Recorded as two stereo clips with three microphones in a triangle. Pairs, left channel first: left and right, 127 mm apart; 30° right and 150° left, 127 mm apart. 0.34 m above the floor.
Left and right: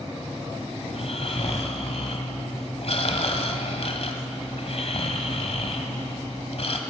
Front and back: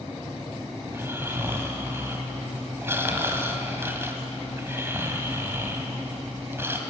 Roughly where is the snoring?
Left.